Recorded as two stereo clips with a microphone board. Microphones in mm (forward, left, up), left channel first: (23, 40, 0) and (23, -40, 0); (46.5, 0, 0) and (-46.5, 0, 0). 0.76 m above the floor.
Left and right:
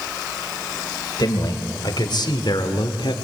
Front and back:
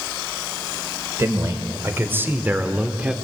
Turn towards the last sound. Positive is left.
turn(degrees=100)